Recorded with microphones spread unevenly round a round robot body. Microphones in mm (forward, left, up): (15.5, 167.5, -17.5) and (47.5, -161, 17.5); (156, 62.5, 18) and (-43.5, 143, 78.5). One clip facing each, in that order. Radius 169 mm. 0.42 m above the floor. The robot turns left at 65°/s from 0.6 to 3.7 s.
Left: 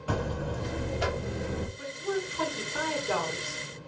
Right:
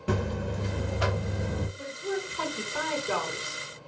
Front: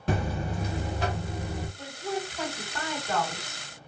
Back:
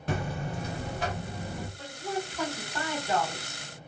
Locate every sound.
0.1 s a buzzer: 20° right, 0.6 m; by 1.7 s 90° right, 0.6 m
1.8 s a woman speaking: 25° right, 1.2 m; by 3.6 s 145° right, 1.2 m